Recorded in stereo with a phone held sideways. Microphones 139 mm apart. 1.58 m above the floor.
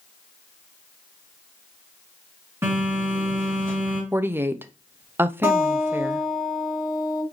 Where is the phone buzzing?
15° right (ahead or behind), 2.5 m.